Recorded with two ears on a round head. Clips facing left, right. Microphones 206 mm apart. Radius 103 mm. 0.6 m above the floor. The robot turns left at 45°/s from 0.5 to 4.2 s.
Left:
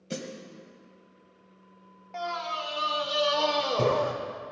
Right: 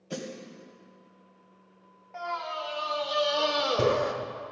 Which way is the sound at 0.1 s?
35° left (ahead or behind).